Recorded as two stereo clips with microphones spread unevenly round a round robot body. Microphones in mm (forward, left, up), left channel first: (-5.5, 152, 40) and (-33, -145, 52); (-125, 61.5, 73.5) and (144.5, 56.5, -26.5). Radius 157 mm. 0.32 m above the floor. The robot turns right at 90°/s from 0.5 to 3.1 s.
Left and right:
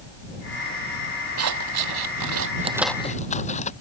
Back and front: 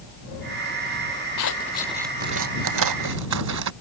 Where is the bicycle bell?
No bicycle bell in this recording.